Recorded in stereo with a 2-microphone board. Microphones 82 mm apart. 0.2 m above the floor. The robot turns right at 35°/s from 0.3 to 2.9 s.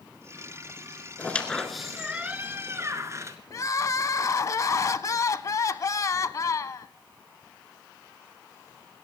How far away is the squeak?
About 1.2 m.